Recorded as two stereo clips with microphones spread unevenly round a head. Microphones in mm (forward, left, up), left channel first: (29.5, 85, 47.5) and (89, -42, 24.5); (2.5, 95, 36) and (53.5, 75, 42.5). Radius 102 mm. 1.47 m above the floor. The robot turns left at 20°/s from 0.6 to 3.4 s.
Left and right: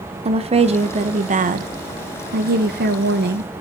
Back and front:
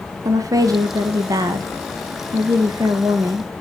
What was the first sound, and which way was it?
A woman speaking, 15° right.